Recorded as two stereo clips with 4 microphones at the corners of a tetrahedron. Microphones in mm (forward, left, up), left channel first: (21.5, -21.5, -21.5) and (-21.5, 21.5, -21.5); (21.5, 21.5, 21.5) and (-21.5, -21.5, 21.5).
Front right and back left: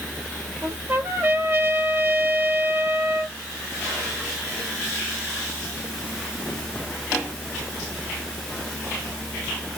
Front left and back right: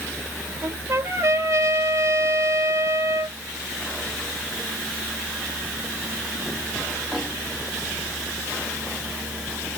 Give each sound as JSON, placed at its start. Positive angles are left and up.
{"t": 0.6, "sound": "a trumpet", "azimuth_deg": -175, "distance_m": 1.3}